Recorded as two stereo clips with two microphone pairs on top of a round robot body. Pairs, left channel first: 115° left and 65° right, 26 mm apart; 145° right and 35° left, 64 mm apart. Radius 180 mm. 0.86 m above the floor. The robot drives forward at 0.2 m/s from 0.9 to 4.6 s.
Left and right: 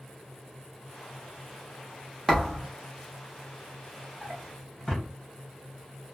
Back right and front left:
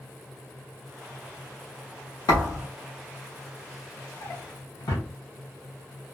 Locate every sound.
2.3 s a thud: 155° right, 0.7 m
4.2 s a drawer: 160° right, 0.6 m; by 5.1 s 165° right, 0.7 m